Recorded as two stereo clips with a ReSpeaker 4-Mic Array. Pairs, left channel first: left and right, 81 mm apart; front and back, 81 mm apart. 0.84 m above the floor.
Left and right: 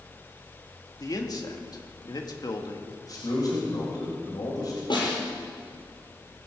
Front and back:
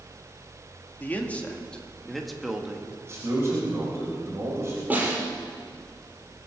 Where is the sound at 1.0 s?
65° left, 1.9 m; by 3.0 s 105° left, 1.6 m.